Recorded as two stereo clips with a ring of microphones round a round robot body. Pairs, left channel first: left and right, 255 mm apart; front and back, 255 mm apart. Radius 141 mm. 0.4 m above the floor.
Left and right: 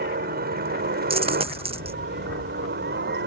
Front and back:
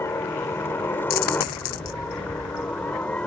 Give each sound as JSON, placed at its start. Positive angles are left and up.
{"t": 0.0, "sound": "a helicopter", "azimuth_deg": -75}
{"t": 1.1, "sound": "a dropped coin", "azimuth_deg": -20}